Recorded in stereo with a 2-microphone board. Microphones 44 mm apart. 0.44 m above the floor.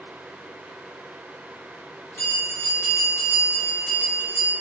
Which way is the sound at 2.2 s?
55° left (ahead or behind).